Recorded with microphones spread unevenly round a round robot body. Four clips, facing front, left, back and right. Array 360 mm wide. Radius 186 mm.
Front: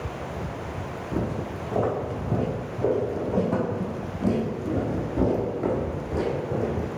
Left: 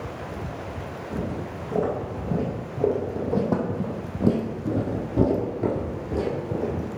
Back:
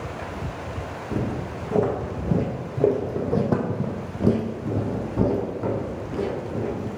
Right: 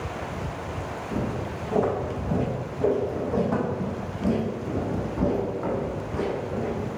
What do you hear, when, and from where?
1.1 s footsteps: straight behind, 2.5 m; by 7.0 s 75° left, 2.5 m